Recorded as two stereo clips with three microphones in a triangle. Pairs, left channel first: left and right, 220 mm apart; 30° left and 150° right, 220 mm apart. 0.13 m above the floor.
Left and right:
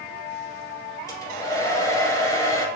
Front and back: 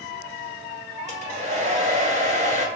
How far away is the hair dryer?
About 2.0 m.